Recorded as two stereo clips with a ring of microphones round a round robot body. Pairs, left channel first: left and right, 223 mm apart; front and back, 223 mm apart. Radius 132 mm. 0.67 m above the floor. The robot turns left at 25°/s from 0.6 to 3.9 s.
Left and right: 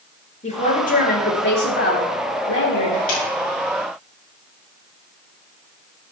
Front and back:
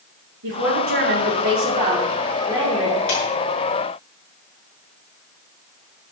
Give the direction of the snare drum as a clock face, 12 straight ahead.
10 o'clock.